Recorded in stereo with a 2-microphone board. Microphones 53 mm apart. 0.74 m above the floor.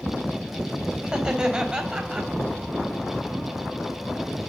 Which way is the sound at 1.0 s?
15° right (ahead or behind).